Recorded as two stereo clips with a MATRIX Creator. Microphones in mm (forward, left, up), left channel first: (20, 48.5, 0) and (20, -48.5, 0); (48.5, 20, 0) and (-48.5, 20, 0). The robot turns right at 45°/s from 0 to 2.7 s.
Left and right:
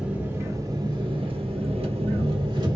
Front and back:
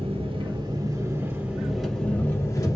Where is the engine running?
170° right, 1.3 m; by 2.8 s 50° right, 1.3 m.